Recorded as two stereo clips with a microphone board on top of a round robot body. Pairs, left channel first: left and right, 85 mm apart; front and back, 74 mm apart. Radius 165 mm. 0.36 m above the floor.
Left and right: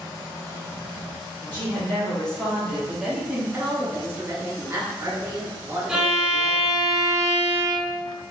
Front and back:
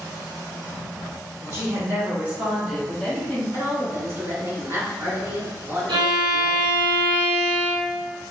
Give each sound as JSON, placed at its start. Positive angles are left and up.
{"t": 1.4, "sound": "a woman speaking", "azimuth_deg": 150, "distance_m": 2.0}
{"t": 3.5, "sound": "a woman speaking", "azimuth_deg": -135, "distance_m": 1.7}
{"t": 5.9, "sound": "a violin", "azimuth_deg": -170, "distance_m": 1.1}